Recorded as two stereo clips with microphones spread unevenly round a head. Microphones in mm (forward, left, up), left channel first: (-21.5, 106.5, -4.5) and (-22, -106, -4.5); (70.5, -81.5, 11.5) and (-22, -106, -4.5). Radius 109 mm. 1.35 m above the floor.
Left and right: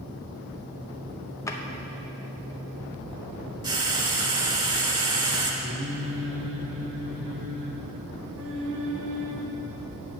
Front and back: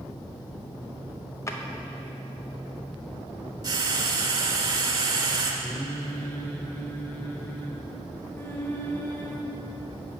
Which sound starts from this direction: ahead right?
Singing, at 5.6 s.